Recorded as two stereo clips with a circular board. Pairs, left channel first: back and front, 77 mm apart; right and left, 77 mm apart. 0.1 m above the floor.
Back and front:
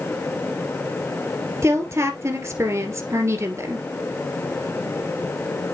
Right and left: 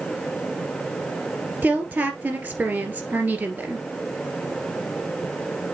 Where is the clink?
No clink in this recording.